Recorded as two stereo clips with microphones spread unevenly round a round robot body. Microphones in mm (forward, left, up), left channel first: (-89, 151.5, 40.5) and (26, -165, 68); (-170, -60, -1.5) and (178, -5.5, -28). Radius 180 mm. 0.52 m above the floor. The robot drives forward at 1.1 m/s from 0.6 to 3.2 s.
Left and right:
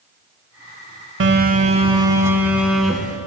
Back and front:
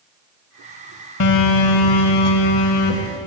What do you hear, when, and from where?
1.2 s a phone buzzing: 125° right, 1.2 m; by 3.2 s 160° right, 3 m